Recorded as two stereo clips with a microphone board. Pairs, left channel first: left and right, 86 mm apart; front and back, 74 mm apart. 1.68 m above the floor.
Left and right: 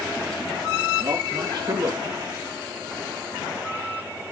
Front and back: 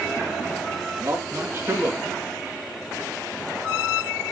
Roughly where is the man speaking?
Behind right.